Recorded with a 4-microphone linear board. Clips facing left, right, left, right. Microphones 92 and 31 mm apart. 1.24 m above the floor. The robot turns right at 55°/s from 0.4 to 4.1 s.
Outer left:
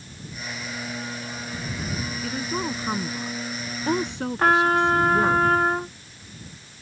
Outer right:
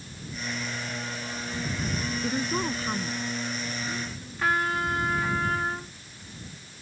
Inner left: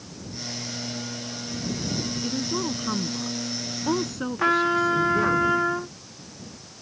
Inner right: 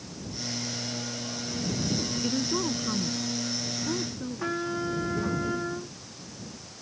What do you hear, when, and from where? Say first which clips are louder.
2.2 s a woman speaking: even, even; 15° right; by 5.4 s 90° left
4.4 s a trumpet: outer left 8 dB, inner left 10 dB; 55° left (ahead or behind)